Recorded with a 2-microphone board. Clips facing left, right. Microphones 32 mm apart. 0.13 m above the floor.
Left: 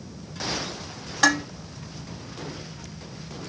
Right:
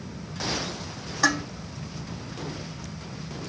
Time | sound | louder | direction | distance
1.2 | dishes clattering | left 3 dB | 75° left (ahead or behind) | 3 m